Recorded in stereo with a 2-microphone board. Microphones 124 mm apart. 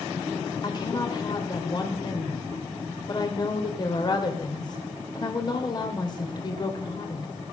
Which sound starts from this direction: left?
A woman speaking, at 0.6 s.